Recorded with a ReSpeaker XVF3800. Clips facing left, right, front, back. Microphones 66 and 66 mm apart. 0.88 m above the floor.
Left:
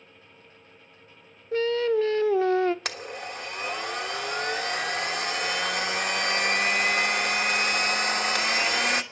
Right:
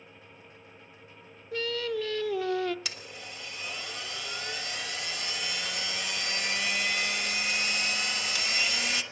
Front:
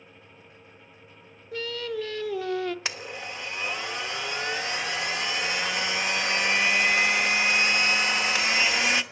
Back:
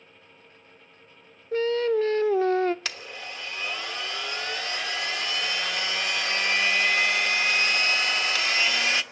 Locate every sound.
1.5 s singing: 135° left, 0.5 m
2.9 s a blender: 65° left, 1.3 m